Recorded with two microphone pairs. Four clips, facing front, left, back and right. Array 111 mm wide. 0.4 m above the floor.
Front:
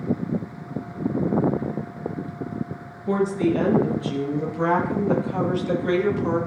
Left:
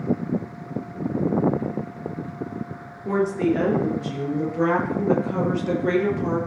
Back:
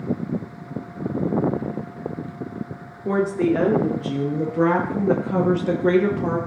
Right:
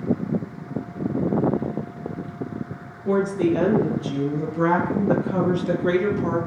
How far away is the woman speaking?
About 6 m.